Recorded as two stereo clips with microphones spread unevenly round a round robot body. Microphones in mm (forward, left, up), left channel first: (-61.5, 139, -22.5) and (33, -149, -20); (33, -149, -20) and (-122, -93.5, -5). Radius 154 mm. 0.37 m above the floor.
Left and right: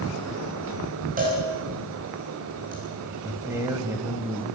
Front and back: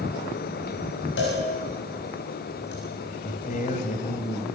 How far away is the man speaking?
About 2 m.